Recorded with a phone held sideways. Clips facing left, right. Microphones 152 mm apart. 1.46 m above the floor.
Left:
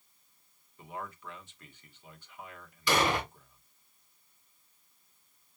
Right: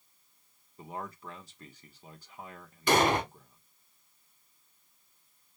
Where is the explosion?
45° right (ahead or behind), 2 m.